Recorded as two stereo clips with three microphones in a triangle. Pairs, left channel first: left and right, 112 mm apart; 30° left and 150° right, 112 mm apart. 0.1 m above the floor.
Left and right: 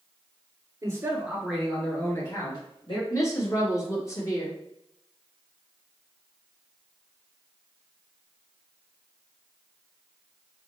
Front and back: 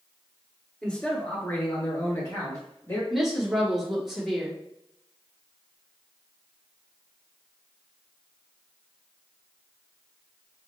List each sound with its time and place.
0.8 s a man speaking: 50° right, 1.7 m; by 3.0 s 80° left, 2 m
3.1 s a woman speaking: 125° left, 1.7 m